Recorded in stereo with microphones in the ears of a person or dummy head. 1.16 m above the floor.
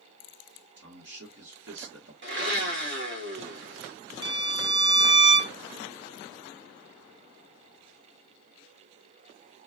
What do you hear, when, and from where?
0.8 s a man speaking: 60° right (ahead or behind), 1.6 m
2.2 s a blender: 55° right (ahead or behind), 1.3 m
4.2 s a violin: 20° right (ahead or behind), 0.5 m